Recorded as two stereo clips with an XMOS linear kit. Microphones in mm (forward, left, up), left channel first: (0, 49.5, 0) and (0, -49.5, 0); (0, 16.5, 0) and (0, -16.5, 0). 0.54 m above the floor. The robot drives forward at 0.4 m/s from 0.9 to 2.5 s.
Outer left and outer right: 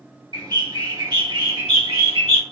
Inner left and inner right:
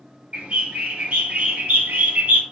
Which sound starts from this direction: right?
A bird, at 0.3 s.